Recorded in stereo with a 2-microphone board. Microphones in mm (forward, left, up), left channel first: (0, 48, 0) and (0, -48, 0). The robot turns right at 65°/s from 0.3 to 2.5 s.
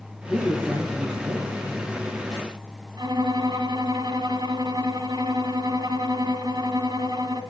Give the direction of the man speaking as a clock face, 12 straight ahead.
7 o'clock.